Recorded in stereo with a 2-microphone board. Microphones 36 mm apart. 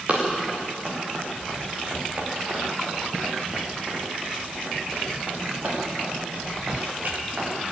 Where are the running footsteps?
45° right (ahead or behind), 7.5 m; by 7.7 s 55° right (ahead or behind), 11.5 m.